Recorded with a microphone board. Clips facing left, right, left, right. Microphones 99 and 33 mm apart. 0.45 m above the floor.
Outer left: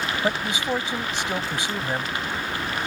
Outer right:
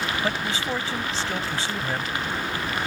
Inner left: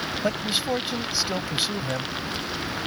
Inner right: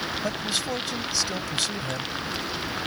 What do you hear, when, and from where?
0.2 s a man speaking: 20° left (ahead or behind)